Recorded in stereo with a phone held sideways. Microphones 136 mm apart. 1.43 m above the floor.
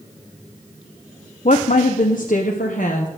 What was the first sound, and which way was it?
A woman speaking, 60° left (ahead or behind).